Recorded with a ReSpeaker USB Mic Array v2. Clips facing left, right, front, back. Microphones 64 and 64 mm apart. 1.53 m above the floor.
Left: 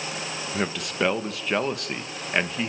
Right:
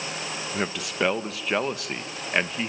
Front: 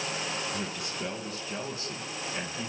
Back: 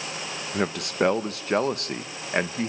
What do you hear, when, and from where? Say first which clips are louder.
0.5 s a man speaking: left 1 dB, back 9 dB; straight behind, 1.3 m